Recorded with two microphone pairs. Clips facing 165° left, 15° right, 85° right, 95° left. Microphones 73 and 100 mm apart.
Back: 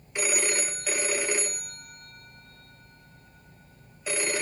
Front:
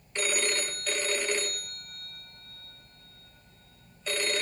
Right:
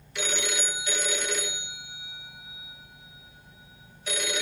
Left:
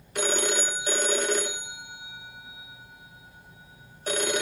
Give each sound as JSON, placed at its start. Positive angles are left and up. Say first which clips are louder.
{"t": 0.1, "sound": "a phone ringing", "louder": "back 1 dB, left 5 dB", "azimuth_deg": 85, "distance_m": 0.8}